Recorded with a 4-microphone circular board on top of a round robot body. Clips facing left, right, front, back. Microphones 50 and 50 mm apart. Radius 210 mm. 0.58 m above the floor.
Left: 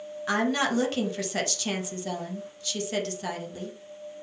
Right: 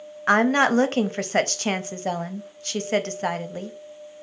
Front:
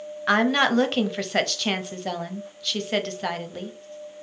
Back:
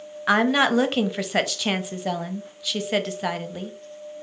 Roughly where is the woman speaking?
Right.